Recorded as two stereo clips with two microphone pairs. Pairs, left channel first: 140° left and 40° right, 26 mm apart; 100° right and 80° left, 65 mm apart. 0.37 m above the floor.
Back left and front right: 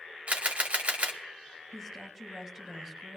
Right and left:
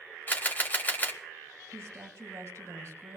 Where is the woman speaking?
30° left, 5 m.